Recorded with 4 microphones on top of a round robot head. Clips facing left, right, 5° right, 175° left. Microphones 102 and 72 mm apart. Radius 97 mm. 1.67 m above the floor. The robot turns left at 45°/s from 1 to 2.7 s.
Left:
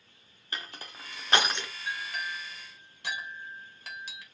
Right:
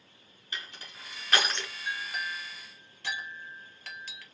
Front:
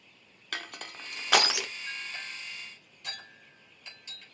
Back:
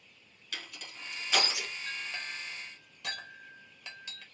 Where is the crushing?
35° left, 0.6 m; by 1.7 s 5° left, 0.6 m.